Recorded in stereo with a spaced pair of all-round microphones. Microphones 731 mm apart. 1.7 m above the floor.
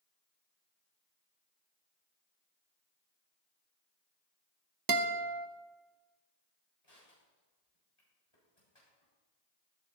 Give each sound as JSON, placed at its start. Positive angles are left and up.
{"t": 4.9, "sound": "a guitar", "side_deg": -30, "distance_m": 0.7}
{"t": 6.8, "sound": "crushing", "side_deg": 45, "distance_m": 7.5}